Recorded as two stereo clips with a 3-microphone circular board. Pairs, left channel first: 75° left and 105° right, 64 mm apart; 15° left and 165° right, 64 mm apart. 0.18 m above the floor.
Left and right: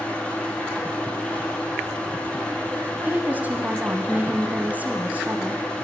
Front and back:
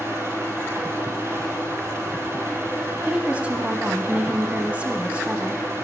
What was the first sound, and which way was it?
An engine running, 150° left.